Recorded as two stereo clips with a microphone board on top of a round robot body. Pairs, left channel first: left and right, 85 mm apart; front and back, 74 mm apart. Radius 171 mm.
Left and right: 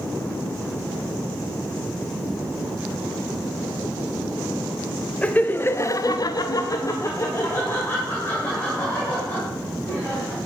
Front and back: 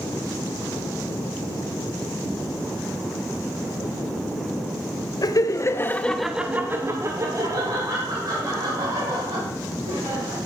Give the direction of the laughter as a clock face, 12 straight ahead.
11 o'clock.